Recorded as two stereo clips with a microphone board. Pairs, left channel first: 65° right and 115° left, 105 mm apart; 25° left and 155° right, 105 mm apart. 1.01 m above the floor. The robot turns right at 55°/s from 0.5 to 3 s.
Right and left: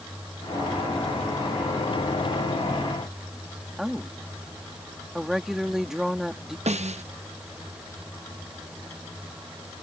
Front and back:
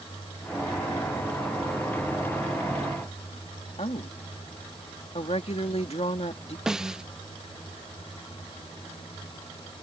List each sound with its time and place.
3.8 s a woman speaking: 25° left
6.7 s a snare drum: 120° left